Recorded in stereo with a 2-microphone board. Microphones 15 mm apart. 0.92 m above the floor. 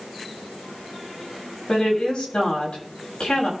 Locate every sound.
1.7 s a woman speaking: 75° left (ahead or behind), 7 m